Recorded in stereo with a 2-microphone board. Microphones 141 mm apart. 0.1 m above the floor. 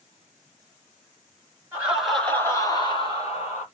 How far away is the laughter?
About 1.2 m.